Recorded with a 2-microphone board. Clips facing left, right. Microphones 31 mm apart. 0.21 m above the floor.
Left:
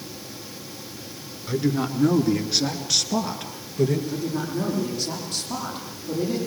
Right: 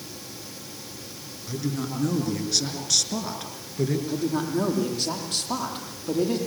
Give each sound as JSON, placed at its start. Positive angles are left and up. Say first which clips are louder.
{"t": 1.5, "sound": "a woman speaking", "louder": "left 6 dB", "side_deg": 35, "distance_m": 3.0}
{"t": 4.1, "sound": "a woman speaking", "louder": "right 2 dB", "side_deg": -55, "distance_m": 8.5}